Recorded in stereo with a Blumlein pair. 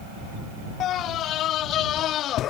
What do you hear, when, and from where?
0.8 s a scream: 30° left